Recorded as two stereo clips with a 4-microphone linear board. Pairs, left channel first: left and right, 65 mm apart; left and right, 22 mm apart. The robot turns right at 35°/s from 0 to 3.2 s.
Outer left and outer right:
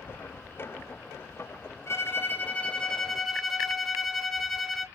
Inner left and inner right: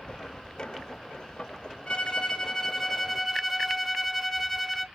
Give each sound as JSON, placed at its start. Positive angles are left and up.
{"t": 1.9, "sound": "a violin", "azimuth_deg": 135, "distance_m": 0.6}